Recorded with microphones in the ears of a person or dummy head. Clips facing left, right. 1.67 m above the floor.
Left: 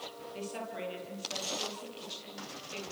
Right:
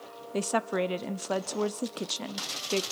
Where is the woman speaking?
75° right (ahead or behind), 0.7 m.